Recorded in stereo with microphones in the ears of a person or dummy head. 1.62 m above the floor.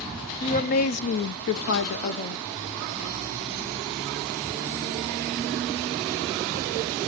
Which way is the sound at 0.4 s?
40° left (ahead or behind).